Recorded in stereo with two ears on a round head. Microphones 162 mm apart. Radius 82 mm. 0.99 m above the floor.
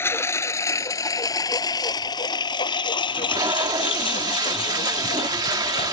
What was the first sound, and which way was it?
A lawn mower, 15° left (ahead or behind).